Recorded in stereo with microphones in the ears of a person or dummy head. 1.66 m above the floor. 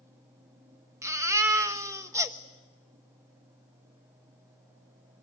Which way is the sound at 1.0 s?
15° right (ahead or behind).